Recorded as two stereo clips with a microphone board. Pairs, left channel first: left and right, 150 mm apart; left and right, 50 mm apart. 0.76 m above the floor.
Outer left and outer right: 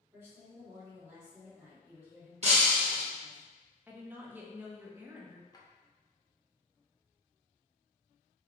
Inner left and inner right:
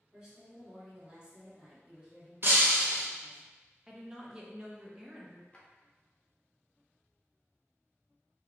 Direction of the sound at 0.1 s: 15° right (ahead or behind).